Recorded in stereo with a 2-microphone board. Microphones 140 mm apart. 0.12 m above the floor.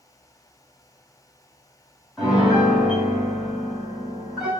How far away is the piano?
About 2 m.